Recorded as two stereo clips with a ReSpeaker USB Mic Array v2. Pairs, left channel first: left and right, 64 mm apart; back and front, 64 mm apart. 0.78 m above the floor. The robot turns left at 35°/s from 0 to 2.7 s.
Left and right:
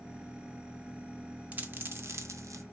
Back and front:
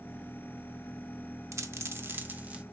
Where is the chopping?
No chopping in this recording.